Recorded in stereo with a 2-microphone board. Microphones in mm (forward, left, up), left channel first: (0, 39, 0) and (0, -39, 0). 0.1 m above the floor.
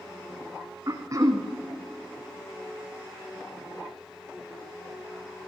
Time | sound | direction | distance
0.9 | throat clearing | 45° right (ahead or behind) | 2 m